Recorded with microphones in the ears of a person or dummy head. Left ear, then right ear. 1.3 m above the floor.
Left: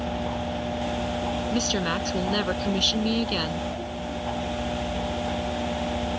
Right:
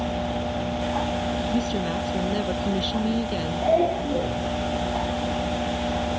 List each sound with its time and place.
1.5 s a woman speaking: 60° left (ahead or behind); by 3.7 s 55° left (ahead or behind)